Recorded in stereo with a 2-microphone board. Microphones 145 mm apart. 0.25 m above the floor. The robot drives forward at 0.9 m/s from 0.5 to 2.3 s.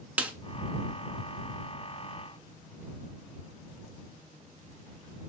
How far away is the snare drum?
About 0.5 m.